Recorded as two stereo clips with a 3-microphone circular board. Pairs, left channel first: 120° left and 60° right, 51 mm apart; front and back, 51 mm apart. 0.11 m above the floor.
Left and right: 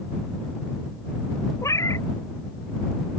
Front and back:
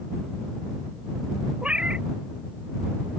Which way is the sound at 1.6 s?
115° left.